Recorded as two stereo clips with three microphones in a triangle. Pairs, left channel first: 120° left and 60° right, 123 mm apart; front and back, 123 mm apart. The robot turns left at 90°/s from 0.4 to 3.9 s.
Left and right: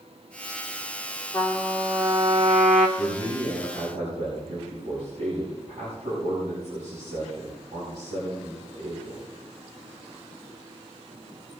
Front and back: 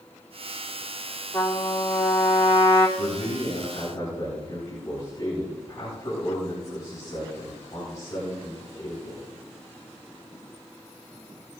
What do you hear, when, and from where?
1.3 s a trumpet: 70° left, 2 m; by 2.9 s 70° right, 2 m
3.0 s a man speaking: 25° left, 6.5 m; by 9.2 s 60° right, 6.5 m